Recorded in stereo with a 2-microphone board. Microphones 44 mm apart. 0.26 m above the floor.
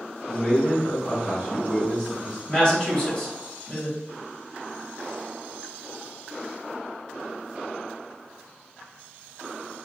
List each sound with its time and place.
0.3 s a man speaking: 15° left (ahead or behind), 1.9 m
2.5 s a woman speaking: 20° left (ahead or behind), 1.2 m